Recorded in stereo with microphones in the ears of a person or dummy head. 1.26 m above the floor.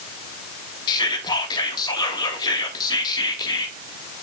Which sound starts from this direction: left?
Whispering, at 0.9 s.